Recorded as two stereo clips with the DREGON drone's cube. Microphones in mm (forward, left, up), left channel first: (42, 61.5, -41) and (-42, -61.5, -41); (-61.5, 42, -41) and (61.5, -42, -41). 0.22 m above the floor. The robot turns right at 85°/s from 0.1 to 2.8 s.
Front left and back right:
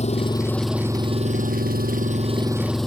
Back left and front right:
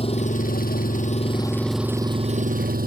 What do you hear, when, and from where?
0.0 s an engine running: 95° left; by 2.9 s 35° right